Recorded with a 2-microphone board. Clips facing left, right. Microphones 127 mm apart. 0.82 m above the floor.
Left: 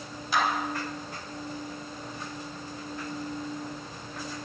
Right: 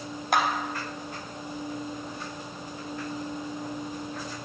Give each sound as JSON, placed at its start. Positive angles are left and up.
{"t": 0.3, "sound": "a clap", "side_deg": -65, "distance_m": 3.5}